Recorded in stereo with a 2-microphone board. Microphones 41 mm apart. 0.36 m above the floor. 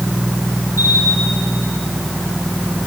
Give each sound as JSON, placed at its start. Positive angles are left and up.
{"t": 0.8, "sound": "a camera shutter", "side_deg": -65, "distance_m": 4.0}